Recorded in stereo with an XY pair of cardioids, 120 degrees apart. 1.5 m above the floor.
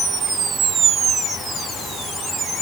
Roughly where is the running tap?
No running tap in this recording.